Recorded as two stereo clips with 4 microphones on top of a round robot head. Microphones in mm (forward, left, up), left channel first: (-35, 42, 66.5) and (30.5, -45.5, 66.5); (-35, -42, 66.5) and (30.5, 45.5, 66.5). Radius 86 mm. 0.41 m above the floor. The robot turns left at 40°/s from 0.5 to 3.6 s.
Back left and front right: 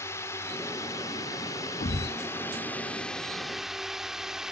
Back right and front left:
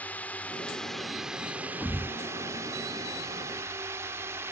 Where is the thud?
155° left; by 2.2 s 140° left.